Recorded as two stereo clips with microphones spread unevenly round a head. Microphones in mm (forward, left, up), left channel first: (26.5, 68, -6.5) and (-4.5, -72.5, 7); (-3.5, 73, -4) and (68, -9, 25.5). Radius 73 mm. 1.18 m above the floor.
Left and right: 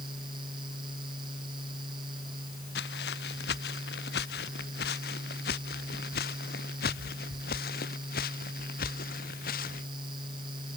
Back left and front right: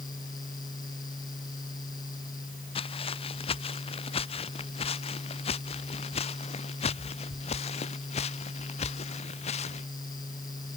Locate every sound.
0.0 s a fan: 165° right
2.8 s footsteps: 100° left; by 9.9 s 110° left